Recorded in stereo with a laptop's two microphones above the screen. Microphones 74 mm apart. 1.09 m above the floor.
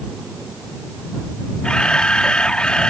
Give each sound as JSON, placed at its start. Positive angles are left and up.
{"t": 1.6, "sound": "a camera shutter", "side_deg": 10}